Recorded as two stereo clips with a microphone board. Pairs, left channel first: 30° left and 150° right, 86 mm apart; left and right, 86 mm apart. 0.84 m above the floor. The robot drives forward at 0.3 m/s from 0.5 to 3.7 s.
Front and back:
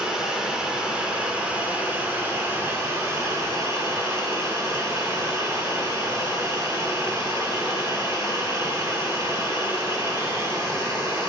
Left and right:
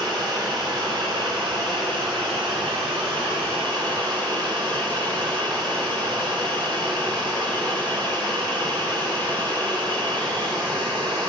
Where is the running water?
70° right, 1.8 m; by 11.3 s 100° right, 1.7 m.